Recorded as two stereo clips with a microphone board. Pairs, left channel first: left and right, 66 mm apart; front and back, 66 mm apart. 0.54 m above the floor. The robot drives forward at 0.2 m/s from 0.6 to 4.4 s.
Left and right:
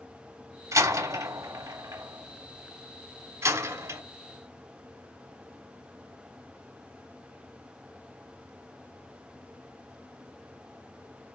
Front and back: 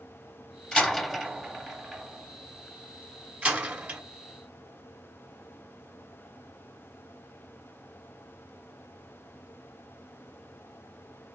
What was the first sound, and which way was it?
A door slam, 80° right.